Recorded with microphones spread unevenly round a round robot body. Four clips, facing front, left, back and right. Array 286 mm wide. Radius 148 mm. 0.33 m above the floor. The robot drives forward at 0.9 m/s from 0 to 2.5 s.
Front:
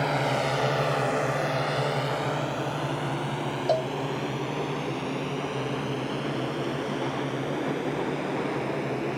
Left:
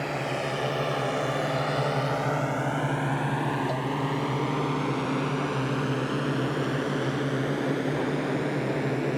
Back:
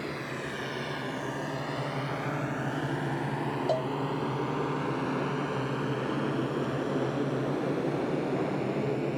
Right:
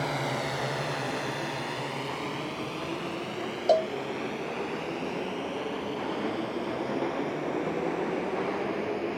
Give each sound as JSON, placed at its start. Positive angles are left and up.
{"t": 0.0, "sound": "a drone", "azimuth_deg": 0}
{"t": 3.7, "sound": "a cowbell", "azimuth_deg": -65}